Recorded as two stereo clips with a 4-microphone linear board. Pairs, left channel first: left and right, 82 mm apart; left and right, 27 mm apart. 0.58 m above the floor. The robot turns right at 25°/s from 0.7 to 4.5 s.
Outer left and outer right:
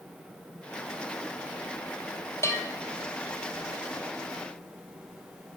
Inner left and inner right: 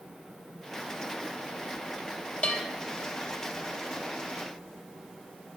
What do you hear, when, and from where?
2.4 s a bell: 35° left (ahead or behind), 2.5 m; by 2.6 s 40° left (ahead or behind), 2.5 m